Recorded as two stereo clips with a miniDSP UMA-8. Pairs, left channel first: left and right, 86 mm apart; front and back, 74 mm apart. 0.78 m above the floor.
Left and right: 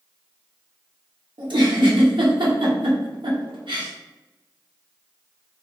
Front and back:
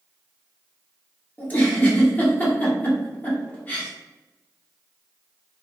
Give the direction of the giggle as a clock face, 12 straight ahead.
2 o'clock.